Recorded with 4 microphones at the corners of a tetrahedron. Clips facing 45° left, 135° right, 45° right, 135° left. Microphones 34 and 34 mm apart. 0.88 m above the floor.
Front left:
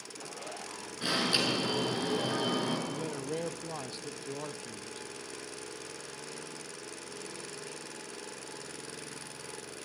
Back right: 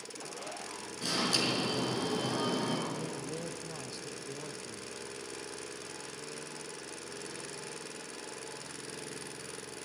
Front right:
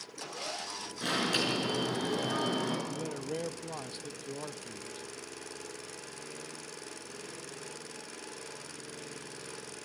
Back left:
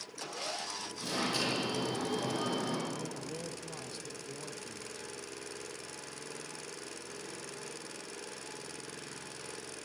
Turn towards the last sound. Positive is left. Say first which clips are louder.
# front left 2 dB, front right 3 dB
turn(degrees=0)